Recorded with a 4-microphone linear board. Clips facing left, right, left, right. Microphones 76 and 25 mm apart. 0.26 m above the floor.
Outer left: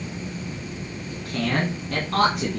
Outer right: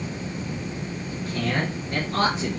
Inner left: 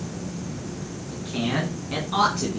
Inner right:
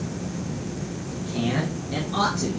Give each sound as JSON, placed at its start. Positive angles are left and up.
{"t": 1.1, "sound": "a man speaking", "side_deg": 65, "distance_m": 2.5}